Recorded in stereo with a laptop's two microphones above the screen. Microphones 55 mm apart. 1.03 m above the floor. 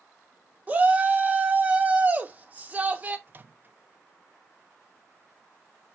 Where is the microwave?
35° right (ahead or behind), 0.6 m.